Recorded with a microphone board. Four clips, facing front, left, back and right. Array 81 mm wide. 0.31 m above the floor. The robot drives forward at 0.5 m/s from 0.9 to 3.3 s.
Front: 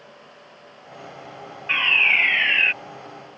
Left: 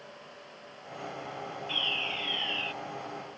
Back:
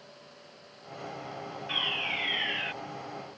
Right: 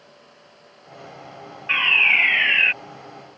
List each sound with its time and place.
1.7 s a fire alarm: 55° right; by 2.7 s 60° right